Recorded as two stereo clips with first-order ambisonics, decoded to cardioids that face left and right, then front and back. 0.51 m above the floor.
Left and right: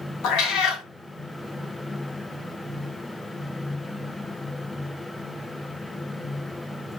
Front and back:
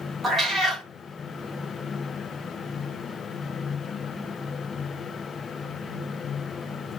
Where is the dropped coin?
I don't hear a dropped coin.